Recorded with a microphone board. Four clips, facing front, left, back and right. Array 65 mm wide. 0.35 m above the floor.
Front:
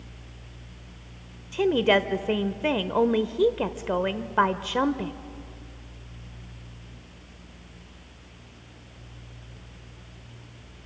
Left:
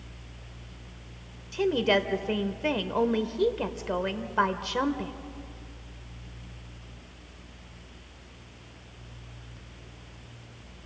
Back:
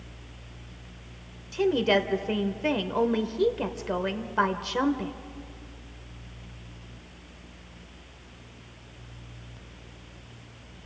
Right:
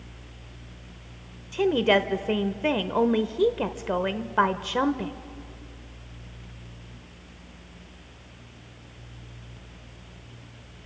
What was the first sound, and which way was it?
A woman speaking, 35° right.